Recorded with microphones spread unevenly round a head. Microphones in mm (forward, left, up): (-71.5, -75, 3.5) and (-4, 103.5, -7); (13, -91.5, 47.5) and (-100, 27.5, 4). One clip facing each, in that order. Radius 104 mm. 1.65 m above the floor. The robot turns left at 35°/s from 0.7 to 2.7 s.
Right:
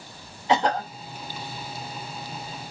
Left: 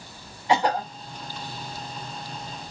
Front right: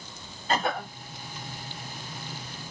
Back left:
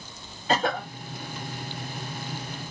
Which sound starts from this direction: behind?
A cough, at 0.5 s.